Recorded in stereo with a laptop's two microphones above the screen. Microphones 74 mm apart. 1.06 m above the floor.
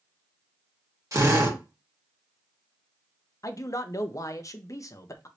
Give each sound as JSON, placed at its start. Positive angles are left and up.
{"t": 1.1, "sound": "a drill", "side_deg": -45, "distance_m": 1.5}
{"t": 3.4, "sound": "a man speaking", "side_deg": 45, "distance_m": 0.5}